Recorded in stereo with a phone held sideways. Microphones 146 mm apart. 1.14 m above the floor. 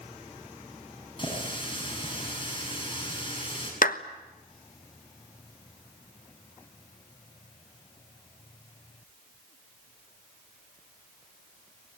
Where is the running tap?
35° left (ahead or behind), 7 m.